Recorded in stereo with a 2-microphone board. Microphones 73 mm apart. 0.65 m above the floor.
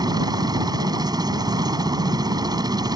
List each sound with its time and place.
0.0 s a helicopter: 65° right (ahead or behind)